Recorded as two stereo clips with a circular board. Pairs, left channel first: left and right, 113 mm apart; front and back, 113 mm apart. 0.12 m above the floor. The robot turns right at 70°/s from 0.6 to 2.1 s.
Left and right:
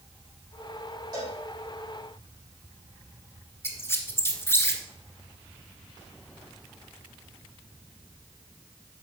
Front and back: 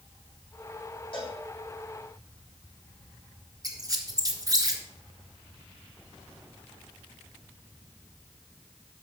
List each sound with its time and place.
1.1 s a cowbell: 40° right, 6 m; by 1.4 s 20° right, 6 m
3.6 s a squeak: 145° left, 1.3 m